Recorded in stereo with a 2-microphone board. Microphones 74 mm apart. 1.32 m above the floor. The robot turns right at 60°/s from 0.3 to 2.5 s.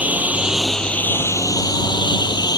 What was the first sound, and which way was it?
A lawn mower, 25° right.